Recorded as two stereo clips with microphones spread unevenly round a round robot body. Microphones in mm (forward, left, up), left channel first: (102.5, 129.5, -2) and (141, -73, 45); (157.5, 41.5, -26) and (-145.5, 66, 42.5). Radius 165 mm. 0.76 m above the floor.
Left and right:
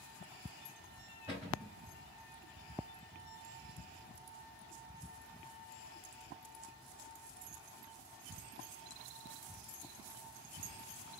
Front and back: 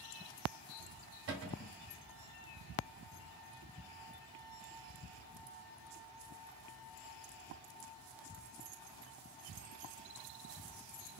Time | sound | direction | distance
1.3 | a cupboard door | 160° right | 1.7 m